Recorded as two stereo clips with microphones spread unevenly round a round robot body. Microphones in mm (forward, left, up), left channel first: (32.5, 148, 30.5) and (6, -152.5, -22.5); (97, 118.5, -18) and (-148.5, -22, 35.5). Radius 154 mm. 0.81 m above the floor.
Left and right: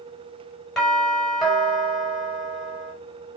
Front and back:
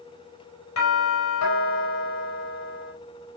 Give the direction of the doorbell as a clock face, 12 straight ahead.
12 o'clock.